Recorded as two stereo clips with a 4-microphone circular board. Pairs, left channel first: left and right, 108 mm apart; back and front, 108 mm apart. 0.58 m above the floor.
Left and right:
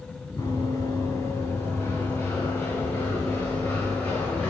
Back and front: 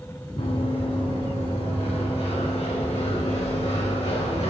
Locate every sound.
0.4 s running footsteps: 155° left, 4 m; by 4.5 s 170° left, 5.5 m